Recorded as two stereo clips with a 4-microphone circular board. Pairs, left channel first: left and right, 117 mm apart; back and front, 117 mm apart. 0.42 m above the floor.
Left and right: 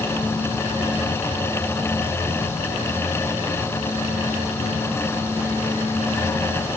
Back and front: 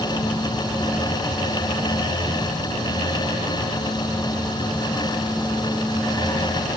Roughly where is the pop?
I don't hear a pop.